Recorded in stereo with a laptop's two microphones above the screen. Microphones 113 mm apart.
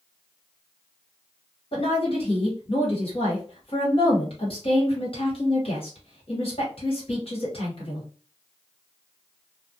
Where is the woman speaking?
55° left (ahead or behind), 1.2 m.